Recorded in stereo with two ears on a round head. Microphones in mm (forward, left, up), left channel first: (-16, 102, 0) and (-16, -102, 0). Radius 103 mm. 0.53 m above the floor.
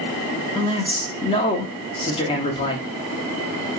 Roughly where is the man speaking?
Left.